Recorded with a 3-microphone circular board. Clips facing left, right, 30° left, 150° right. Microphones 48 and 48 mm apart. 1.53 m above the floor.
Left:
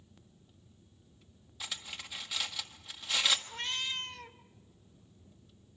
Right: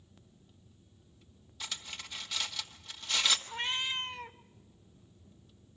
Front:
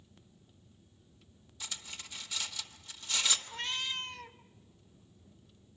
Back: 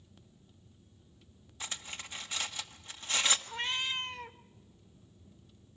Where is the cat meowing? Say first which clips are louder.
Right 3 dB, back 2 dB; 125° right, 0.9 m.